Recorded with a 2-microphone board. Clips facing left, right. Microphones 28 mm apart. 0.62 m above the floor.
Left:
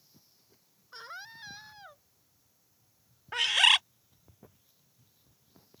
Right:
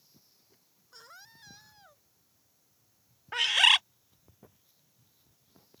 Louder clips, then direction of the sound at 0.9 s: Left 8 dB; 40° left (ahead or behind).